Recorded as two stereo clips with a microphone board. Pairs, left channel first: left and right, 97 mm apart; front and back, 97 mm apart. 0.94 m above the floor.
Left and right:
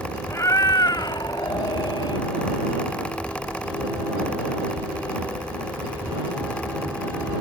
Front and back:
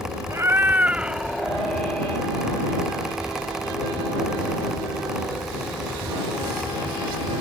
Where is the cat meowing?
135° left; by 2.3 s 70° left.